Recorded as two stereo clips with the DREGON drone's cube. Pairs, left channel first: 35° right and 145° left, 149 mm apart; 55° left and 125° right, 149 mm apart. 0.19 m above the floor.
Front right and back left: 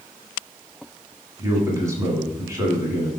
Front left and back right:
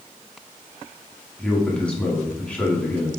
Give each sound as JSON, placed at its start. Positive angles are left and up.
{"t": 1.4, "sound": "a man speaking", "azimuth_deg": 125, "distance_m": 1.0}